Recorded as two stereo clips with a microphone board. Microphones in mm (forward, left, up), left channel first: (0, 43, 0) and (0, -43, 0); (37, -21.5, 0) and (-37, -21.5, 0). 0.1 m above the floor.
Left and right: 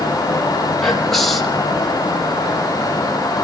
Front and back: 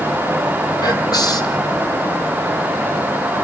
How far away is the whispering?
About 3 m.